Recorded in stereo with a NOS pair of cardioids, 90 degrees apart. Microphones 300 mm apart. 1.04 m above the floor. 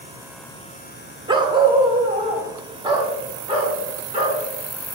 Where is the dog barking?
15° right, 1.3 m.